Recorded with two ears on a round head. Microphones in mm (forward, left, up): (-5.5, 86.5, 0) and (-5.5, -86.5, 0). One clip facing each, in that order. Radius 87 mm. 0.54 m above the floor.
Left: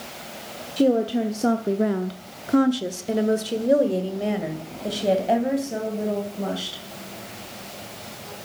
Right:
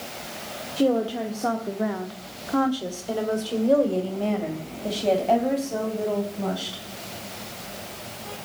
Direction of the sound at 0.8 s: 20° left (ahead or behind).